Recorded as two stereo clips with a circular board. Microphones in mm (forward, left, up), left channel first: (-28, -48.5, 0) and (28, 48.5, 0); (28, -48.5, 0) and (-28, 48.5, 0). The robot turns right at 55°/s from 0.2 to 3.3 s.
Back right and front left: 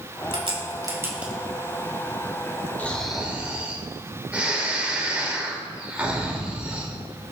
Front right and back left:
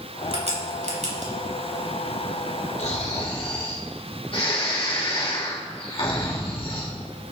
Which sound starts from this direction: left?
A crack, at 0.3 s.